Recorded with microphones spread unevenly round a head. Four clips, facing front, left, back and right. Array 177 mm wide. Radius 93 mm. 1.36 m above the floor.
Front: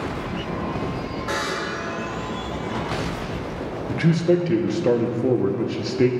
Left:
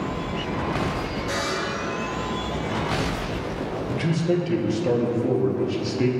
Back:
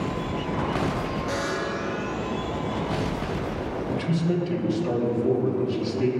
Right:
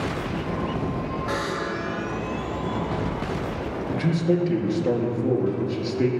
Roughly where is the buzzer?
Ahead right.